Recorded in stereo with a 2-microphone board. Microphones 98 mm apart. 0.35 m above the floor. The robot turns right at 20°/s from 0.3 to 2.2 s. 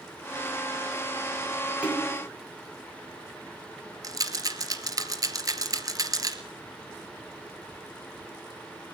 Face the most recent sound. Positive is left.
turn(degrees=-40)  # may be behind; listen again after turning